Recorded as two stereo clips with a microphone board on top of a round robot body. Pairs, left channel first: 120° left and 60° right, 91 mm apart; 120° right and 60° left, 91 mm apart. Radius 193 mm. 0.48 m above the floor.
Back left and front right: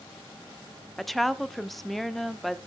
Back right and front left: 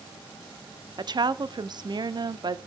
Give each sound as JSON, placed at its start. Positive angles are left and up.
{"t": 1.0, "sound": "a woman speaking", "azimuth_deg": 30, "distance_m": 1.3}